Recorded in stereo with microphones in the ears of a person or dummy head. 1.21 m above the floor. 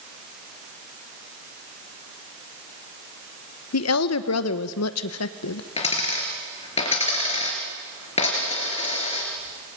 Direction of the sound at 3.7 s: 80° left.